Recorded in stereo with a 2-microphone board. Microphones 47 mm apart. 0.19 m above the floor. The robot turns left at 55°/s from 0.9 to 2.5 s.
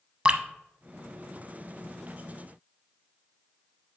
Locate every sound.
0.2 s dripping: 25° right (ahead or behind), 0.6 m